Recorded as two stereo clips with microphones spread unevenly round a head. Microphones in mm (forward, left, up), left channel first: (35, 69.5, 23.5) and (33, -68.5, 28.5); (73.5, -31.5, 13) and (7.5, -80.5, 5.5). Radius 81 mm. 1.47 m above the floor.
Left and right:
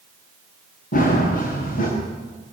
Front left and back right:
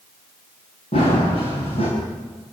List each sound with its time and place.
0.9 s running footsteps: 70° left, 8 m